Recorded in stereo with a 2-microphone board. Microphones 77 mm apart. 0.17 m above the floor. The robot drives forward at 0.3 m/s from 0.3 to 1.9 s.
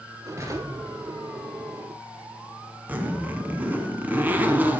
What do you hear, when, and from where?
0.4 s an explosion: 40° right (ahead or behind), 2.0 m; by 1.5 s 45° right (ahead or behind), 1.8 m
2.9 s a zipper: 20° right (ahead or behind), 1.3 m